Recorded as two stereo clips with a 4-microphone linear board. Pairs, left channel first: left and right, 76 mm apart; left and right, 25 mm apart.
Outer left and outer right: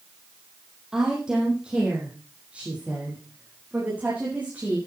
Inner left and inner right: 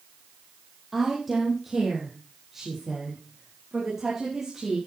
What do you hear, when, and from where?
0.9 s a woman speaking: 5° right (ahead or behind), 4.5 m; by 4.8 s 20° right (ahead or behind), 8 m